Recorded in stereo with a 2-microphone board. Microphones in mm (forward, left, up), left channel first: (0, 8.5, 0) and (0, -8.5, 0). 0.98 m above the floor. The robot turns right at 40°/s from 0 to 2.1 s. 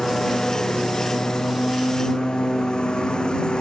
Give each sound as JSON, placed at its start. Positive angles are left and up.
{"t": 0.0, "sound": "a lawn mower", "azimuth_deg": 35}